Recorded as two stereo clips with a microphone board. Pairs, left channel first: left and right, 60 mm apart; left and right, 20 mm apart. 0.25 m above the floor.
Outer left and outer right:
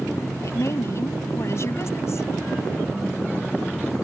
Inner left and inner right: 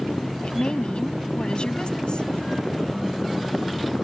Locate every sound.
0.4 s a woman speaking: 50° left (ahead or behind)